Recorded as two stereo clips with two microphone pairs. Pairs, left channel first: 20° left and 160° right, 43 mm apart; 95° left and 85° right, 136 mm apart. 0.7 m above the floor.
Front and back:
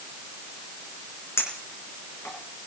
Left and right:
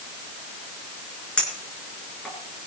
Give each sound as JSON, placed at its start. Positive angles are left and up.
{"t": 1.4, "sound": "a clink", "azimuth_deg": 10, "distance_m": 4.5}